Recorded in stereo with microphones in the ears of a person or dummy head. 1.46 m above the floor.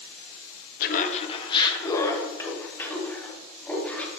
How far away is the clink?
I don't hear a clink.